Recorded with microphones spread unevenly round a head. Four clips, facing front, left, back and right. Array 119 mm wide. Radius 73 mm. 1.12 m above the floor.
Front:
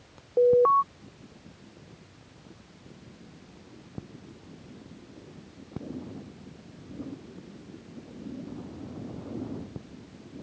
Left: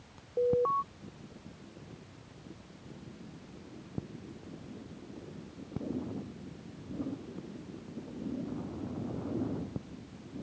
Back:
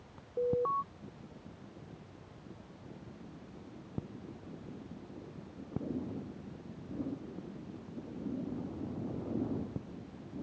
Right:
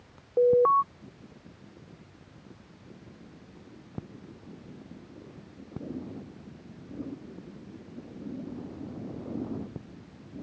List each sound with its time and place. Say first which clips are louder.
0.4 s an alarm: right 8 dB, front 12 dB; 30° right